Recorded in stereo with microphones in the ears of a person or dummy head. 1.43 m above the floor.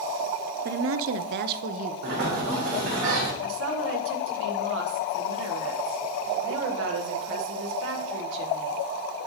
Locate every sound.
0.7 s a woman speaking: 55° right (ahead or behind), 0.5 m; by 3.0 s 25° right (ahead or behind), 1.5 m
2.0 s a sliding door: 65° right (ahead or behind), 2 m
3.4 s a woman speaking: 70° right (ahead or behind), 1.2 m